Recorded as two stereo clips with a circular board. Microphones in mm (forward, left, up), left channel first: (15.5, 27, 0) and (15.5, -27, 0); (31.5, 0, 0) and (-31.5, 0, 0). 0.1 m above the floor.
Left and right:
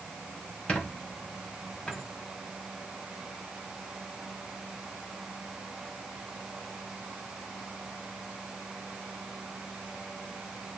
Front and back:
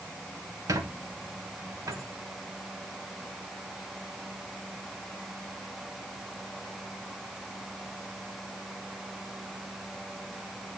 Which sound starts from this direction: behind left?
A squeak, at 0.7 s.